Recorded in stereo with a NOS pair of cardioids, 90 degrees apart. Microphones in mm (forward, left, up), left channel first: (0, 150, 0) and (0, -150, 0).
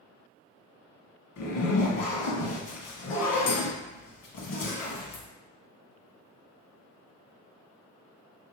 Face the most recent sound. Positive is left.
turn(degrees=65)